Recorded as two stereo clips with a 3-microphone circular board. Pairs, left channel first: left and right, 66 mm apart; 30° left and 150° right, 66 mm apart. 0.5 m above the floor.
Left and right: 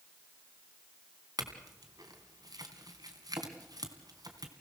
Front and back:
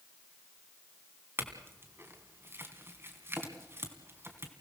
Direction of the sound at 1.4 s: 100° right.